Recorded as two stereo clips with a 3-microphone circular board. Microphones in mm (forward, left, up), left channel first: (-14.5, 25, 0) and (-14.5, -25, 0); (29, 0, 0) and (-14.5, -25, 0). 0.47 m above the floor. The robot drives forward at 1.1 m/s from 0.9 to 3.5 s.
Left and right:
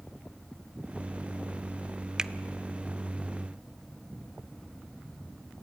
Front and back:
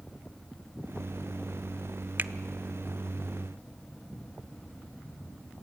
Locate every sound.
2.2 s a finger snap: 155° right, 0.6 m; by 2.3 s 160° right, 0.7 m